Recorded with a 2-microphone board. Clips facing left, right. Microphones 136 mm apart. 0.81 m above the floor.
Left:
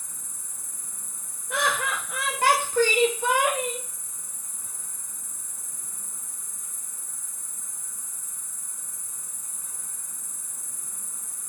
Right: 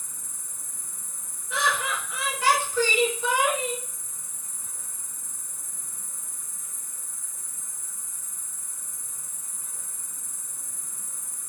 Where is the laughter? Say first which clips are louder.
Left 1 dB; 55° left (ahead or behind), 0.8 m.